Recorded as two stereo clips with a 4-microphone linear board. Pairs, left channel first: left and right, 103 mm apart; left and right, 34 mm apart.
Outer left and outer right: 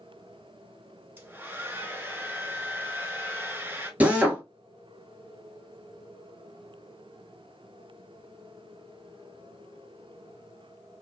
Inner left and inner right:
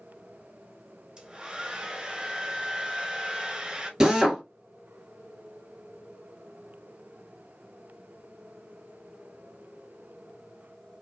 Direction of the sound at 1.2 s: 20° right (ahead or behind).